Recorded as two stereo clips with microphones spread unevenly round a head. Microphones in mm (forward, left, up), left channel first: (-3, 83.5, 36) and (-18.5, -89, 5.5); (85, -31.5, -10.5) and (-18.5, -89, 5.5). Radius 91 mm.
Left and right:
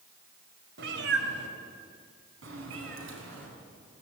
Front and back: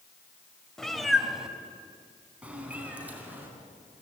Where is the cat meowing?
60° right, 1.8 m; by 3.5 s 75° right, 4.5 m.